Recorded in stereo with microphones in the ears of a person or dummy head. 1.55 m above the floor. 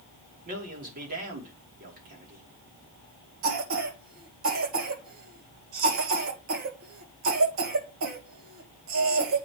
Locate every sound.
0.5 s a man speaking: 45° right (ahead or behind), 2.5 m
3.4 s a cough: 75° right (ahead or behind), 2.5 m